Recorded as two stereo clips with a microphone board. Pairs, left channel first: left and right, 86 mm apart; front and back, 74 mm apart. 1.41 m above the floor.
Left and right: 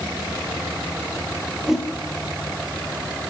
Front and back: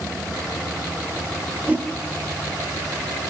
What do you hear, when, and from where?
1.7 s a whoosh: 165° right, 1.1 m